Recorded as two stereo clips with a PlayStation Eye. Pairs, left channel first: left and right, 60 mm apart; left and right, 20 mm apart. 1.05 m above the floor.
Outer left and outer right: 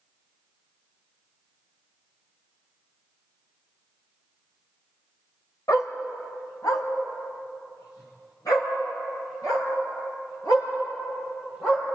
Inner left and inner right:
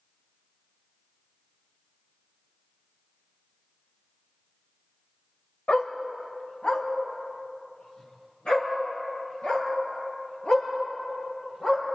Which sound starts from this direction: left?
A dog barking, at 5.7 s.